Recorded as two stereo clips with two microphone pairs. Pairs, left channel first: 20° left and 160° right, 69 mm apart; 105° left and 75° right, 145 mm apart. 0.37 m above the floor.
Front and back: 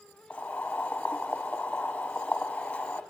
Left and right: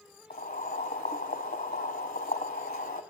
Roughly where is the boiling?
Left.